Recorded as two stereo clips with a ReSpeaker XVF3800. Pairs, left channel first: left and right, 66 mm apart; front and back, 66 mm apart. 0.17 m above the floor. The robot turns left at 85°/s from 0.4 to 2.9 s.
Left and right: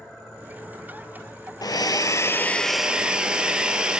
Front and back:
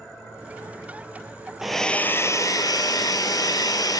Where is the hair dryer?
95° left, 0.6 m; by 4.0 s 15° right, 0.6 m.